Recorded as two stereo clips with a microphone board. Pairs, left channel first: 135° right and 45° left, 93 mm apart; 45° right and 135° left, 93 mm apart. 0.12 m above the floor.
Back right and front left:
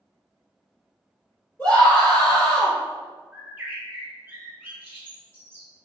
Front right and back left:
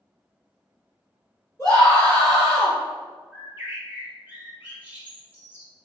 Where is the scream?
75° right, 1.7 m.